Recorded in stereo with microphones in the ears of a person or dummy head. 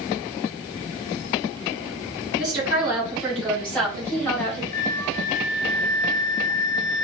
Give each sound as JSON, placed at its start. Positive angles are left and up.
{"t": 2.4, "sound": "a woman speaking", "side_deg": 0, "distance_m": 2.5}
{"t": 4.7, "sound": "a flute", "side_deg": 20, "distance_m": 0.6}